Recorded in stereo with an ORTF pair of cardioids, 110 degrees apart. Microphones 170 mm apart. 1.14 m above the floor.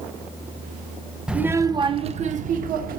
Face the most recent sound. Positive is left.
turn(degrees=-65)